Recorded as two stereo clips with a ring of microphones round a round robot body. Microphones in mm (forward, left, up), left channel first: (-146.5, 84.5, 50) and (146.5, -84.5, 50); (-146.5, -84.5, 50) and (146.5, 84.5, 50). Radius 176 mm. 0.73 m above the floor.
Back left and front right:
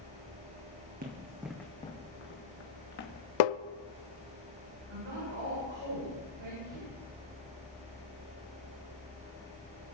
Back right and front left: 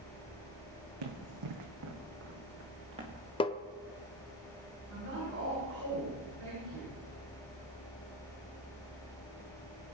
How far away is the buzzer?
No buzzer in this recording.